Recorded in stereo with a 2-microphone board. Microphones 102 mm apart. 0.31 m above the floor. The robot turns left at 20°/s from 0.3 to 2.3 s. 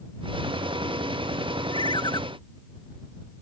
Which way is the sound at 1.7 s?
55° left (ahead or behind).